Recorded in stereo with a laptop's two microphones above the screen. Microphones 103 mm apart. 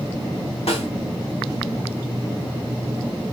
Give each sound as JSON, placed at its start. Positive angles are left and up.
{"t": 0.7, "sound": "a snare drum", "side_deg": 75, "distance_m": 4.0}